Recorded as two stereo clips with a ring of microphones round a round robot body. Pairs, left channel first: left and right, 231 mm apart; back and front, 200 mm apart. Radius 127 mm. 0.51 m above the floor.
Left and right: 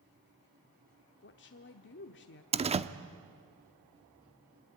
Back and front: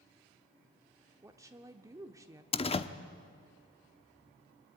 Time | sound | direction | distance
1.2 | a woman speaking | 70° left | 1.3 m
2.5 | a door slam | 135° right | 0.9 m